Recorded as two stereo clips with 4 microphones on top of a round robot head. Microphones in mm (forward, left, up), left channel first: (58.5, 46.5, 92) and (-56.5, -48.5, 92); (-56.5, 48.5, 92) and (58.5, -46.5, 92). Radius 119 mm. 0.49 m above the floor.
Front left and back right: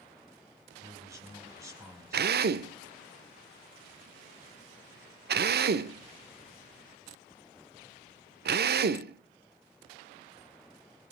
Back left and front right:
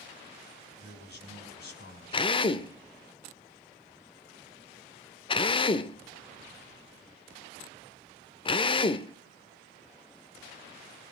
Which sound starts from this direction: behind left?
A man speaking, at 0.8 s.